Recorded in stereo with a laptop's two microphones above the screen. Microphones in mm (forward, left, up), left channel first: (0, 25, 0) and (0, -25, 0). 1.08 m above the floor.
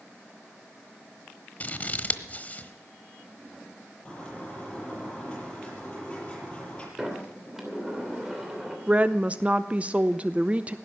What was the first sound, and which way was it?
Scissors, 25° left (ahead or behind).